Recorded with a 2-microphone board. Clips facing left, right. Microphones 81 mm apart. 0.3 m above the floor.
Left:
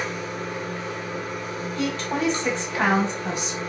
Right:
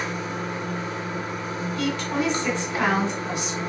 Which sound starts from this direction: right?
Running water, at 0.0 s.